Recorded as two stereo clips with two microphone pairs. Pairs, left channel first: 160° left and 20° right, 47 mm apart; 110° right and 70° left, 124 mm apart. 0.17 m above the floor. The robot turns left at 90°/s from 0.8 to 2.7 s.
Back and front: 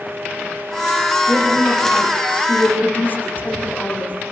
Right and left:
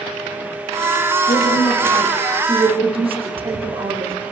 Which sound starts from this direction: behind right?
A woman speaking, at 1.3 s.